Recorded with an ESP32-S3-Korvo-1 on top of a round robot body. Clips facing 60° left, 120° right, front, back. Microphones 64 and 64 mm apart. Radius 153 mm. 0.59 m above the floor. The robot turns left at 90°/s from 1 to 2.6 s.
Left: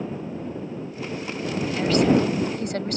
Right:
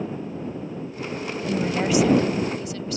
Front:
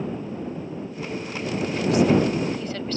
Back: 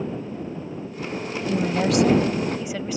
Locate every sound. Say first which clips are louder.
1.5 s a woman speaking: right 1 dB, back 2 dB; 155° right; by 3.0 s 100° left